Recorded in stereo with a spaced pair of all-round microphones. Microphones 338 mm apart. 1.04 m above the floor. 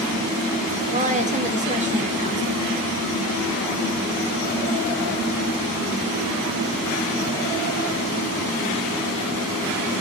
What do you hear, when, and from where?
0.9 s a woman speaking: 20° right (ahead or behind), 1.5 m